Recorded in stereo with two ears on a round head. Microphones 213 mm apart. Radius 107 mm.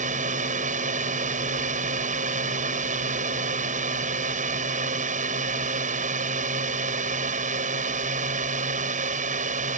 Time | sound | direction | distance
0.0 | a drone | 30° right (ahead or behind) | ?